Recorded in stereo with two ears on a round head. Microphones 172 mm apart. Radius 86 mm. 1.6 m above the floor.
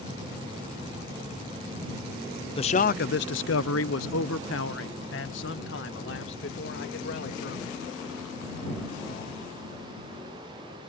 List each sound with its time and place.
2.6 s a man speaking: 30° left (ahead or behind); by 7.8 s 65° left (ahead or behind)